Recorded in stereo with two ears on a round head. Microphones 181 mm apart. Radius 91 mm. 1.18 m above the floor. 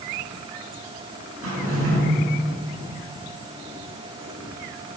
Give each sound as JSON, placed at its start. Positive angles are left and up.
{"t": 1.4, "sound": "a drawer", "side_deg": -75, "distance_m": 3.0}